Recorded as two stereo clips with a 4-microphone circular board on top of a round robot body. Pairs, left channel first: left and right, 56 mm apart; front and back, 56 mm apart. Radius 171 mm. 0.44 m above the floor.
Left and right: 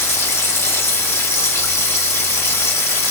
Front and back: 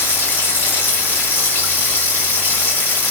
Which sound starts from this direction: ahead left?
Running water, at 0.0 s.